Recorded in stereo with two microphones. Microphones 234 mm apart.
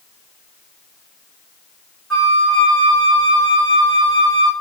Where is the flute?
Centre (ahead or behind), 1.4 m.